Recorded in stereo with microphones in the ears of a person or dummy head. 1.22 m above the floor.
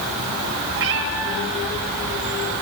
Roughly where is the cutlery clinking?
I don't hear cutlery clinking.